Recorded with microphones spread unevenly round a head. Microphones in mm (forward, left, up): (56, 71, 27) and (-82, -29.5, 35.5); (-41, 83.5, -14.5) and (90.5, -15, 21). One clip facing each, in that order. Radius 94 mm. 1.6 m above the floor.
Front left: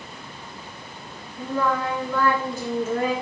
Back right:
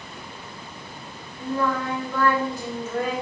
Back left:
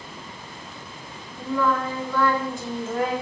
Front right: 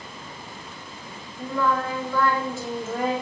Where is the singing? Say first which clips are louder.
Front left 1 dB, back left 1 dB; 45° left, 3.5 m.